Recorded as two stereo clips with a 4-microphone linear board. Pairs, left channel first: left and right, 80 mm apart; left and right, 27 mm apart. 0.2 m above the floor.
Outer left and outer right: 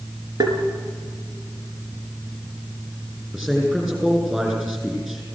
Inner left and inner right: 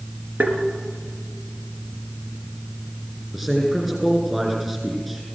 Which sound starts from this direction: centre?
A man speaking, at 3.3 s.